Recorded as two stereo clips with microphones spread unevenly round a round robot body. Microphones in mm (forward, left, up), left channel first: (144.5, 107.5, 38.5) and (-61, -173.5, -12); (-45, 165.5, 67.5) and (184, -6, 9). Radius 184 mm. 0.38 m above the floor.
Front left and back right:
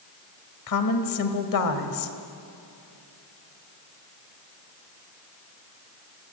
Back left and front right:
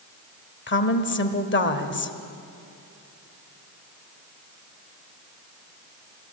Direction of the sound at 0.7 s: 90° left.